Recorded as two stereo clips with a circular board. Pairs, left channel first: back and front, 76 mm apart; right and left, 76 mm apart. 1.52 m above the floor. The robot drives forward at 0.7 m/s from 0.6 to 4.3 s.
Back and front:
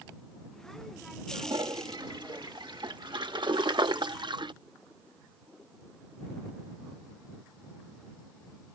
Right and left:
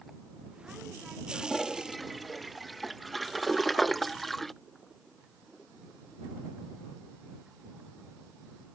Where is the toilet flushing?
Straight ahead; by 4.5 s 5° right.